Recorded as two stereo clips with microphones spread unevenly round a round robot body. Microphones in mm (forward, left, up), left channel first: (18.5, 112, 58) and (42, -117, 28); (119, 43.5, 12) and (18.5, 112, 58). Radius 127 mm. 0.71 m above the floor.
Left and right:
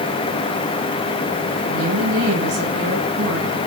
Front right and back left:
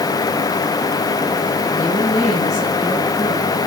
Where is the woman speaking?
100° right, 5.5 m.